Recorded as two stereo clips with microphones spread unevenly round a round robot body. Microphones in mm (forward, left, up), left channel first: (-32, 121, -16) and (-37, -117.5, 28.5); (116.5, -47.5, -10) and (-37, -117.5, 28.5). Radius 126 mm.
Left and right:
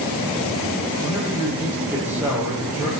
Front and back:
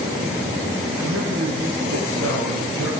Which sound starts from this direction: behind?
A man speaking, at 1.0 s.